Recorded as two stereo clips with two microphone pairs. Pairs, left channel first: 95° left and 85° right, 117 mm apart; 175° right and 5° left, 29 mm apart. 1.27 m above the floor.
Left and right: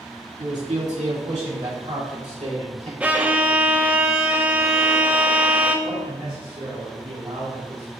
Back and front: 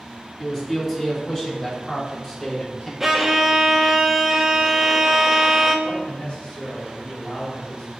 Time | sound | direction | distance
0.4 | a man speaking | 90° right | 1.9 m
3.0 | a violin | 45° right | 0.7 m
5.8 | a man speaking | 120° right | 1.8 m